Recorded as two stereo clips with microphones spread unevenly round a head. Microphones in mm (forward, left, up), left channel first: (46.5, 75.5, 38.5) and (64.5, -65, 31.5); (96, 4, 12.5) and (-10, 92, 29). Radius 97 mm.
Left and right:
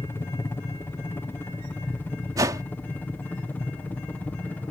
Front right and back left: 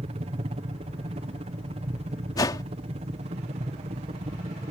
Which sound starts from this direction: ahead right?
A whoosh, at 2.4 s.